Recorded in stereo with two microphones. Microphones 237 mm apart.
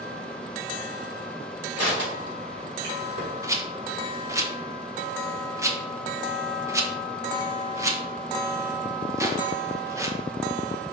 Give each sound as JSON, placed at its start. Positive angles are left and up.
{"t": 1.8, "sound": "crushing", "side_deg": -80, "distance_m": 3.5}
{"t": 3.4, "sound": "a rattle", "side_deg": -15, "distance_m": 0.9}